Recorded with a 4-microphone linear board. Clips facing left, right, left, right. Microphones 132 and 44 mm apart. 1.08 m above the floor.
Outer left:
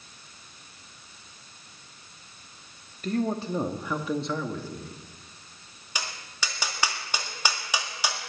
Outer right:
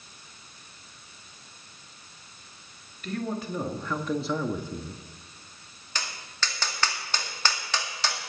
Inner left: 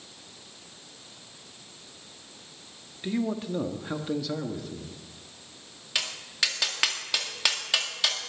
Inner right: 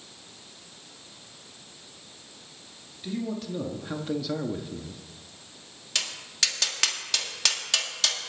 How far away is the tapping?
About 1.8 m.